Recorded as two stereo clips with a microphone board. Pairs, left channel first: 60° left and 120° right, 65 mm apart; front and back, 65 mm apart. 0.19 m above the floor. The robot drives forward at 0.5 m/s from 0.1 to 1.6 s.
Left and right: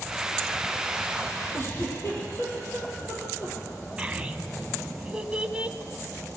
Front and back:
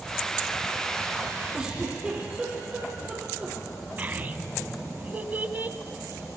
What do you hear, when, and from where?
1.5 s a giggle: 110° left, 7 m
4.0 s a child speaking: 175° right, 0.8 m